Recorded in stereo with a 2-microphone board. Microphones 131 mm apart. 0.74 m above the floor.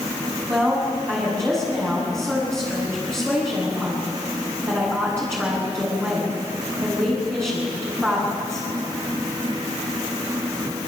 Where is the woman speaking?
20° right (ahead or behind), 7 m.